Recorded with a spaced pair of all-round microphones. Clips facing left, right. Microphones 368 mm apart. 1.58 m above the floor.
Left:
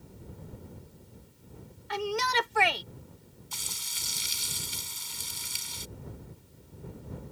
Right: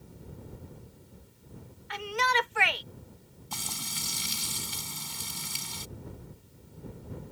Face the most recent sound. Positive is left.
turn(degrees=-75)  # may be behind; listen again after turning